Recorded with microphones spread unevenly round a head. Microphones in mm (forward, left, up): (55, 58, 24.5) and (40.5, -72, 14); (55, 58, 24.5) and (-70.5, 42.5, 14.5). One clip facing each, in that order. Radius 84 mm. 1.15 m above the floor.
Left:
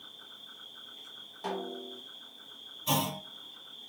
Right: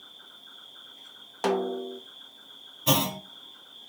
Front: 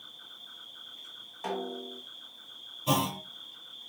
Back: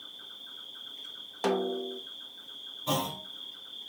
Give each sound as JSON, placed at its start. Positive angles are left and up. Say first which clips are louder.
{"t": 0.0, "sound": "an insect", "louder": "right 1 dB, back 2 dB", "azimuth_deg": 165, "distance_m": 4.0}
{"t": 1.4, "sound": "a snare drum", "louder": "right 10 dB, back 6 dB", "azimuth_deg": -140, "distance_m": 0.8}
{"t": 2.9, "sound": "a clunk", "louder": "right 5 dB, front 3 dB", "azimuth_deg": -75, "distance_m": 2.0}